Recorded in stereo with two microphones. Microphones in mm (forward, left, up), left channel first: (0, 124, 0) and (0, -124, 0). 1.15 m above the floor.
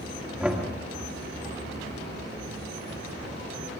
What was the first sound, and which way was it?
Knocking, 5° right (ahead or behind).